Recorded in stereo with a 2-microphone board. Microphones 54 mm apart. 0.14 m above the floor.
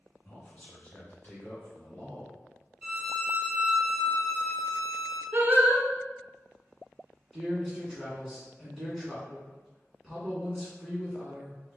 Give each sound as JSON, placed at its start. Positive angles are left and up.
{"t": 0.2, "sound": "a man speaking", "side_deg": 20, "distance_m": 1.4}
{"t": 2.8, "sound": "a violin", "side_deg": -20, "distance_m": 2.0}
{"t": 5.3, "sound": "singing", "side_deg": -35, "distance_m": 0.8}
{"t": 7.3, "sound": "a man speaking", "side_deg": 0, "distance_m": 1.5}